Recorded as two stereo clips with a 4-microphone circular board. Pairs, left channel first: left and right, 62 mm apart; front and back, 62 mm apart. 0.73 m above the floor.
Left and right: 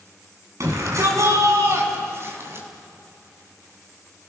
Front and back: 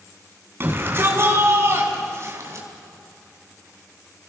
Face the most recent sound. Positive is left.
turn(degrees=-140)